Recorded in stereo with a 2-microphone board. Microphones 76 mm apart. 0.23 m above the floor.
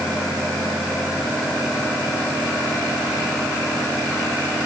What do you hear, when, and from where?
Only background noise.